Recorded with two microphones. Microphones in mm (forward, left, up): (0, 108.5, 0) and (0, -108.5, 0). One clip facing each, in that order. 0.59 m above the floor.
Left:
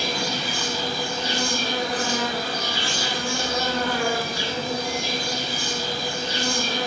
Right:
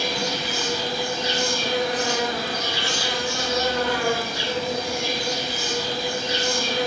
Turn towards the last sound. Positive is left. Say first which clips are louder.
# right 1 dB
turn(degrees=30)  # may be behind; listen again after turning